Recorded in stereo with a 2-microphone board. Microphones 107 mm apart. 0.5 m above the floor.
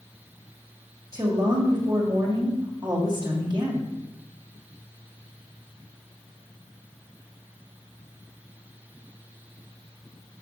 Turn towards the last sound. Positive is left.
turn(degrees=-35)  # may be behind; listen again after turning